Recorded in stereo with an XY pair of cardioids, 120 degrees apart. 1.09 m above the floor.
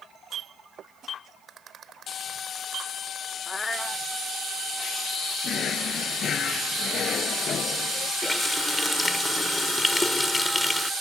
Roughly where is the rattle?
Ahead right.